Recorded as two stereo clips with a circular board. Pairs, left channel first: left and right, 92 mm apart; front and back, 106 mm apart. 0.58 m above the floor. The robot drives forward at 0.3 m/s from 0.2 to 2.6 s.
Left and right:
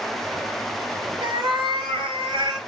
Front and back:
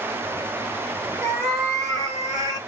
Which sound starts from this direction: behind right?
A cat meowing, at 1.2 s.